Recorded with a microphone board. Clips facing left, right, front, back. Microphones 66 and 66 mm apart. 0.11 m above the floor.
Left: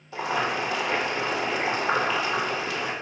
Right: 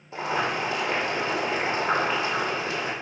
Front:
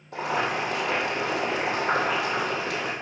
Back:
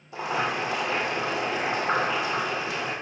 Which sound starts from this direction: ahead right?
Boiling, at 0.1 s.